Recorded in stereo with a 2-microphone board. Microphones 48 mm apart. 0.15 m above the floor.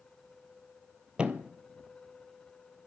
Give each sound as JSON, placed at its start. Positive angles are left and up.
{"t": 1.2, "sound": "a thud", "side_deg": -25, "distance_m": 0.8}